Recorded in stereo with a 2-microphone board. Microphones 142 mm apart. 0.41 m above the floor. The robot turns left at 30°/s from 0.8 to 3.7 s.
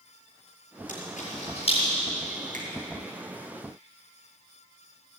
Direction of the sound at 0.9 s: 70° left (ahead or behind).